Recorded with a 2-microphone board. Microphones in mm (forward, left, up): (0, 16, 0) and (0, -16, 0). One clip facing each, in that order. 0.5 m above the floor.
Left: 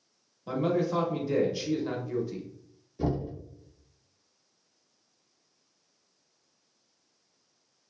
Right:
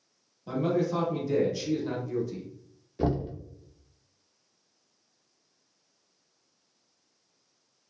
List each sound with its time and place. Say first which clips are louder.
0.5 s a man speaking: even; 15° left (ahead or behind), 0.7 m
3.0 s knocking: right 2 dB; 40° right (ahead or behind), 0.5 m